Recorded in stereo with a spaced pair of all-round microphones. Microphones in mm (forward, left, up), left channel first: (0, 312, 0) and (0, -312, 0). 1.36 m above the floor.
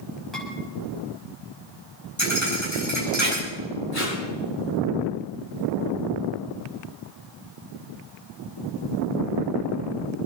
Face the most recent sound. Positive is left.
turn(degrees=80)